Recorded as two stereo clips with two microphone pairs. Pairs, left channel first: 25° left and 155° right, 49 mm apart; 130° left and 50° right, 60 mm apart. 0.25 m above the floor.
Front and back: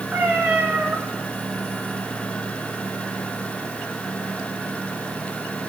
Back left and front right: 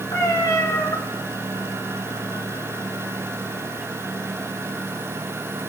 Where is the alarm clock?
No alarm clock in this recording.